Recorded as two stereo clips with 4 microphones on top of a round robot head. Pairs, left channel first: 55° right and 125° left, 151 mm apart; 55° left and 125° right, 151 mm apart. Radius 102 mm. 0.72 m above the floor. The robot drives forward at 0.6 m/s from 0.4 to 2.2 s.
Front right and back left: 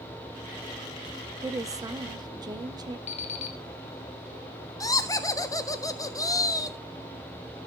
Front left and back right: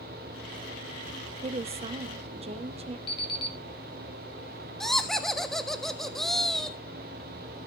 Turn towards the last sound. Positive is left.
turn(degrees=-30)